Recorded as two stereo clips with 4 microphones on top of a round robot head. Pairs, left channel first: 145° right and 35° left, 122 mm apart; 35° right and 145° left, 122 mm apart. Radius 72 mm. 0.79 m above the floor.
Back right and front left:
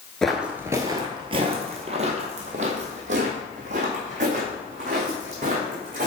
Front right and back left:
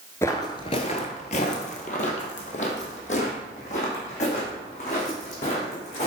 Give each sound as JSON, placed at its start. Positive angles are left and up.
{"t": 0.2, "sound": "footsteps", "azimuth_deg": -70, "distance_m": 0.7}